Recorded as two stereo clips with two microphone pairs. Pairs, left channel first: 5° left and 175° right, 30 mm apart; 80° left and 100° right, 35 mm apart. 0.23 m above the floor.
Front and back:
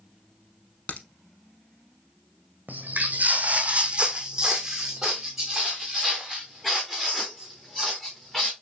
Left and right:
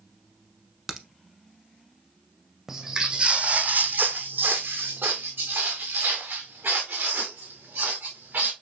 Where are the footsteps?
175° right, 0.8 m; by 8.5 s 75° right, 3 m.